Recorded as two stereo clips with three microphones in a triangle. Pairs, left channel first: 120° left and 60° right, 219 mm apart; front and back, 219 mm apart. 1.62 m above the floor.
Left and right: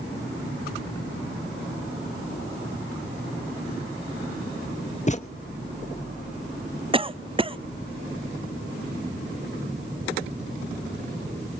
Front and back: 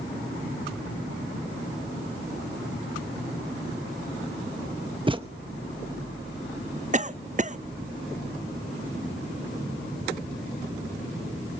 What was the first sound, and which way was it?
A thud, 135° left.